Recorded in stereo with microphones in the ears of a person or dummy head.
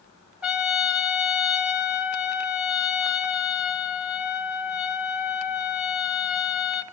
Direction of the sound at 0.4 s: 5° right (ahead or behind).